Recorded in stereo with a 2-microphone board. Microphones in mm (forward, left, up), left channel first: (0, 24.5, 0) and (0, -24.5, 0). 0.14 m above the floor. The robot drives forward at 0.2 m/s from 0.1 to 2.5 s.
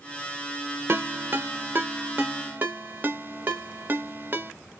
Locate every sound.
0.9 s a ringtone: 45° right (ahead or behind), 0.5 m; by 4.5 s 35° right (ahead or behind), 0.6 m